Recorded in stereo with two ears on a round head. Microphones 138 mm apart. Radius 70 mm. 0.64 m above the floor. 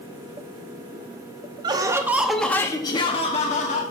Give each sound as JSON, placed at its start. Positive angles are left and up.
{"t": 1.6, "sound": "laughter", "side_deg": -30, "distance_m": 0.9}